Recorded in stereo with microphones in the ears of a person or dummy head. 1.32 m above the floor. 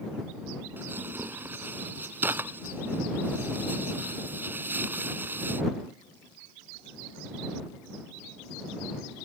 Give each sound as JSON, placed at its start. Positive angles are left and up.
{"t": 0.8, "sound": "tearing paper", "side_deg": -10}